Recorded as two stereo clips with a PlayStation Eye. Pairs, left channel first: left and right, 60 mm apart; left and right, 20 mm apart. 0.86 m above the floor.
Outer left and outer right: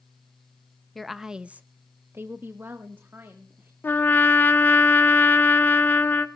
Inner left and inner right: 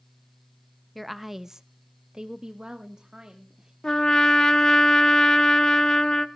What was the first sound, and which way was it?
A woman speaking, 5° left (ahead or behind).